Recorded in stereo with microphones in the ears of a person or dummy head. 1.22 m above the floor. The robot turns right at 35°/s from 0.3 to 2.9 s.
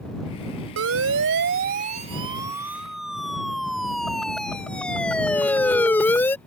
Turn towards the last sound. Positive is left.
turn(degrees=10)  # may be behind; listen again after turning